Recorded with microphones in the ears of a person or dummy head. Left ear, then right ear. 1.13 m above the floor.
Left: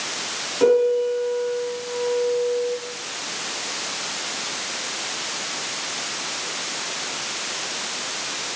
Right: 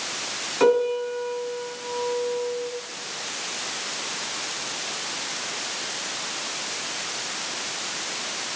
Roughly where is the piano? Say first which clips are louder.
Left 3 dB; right.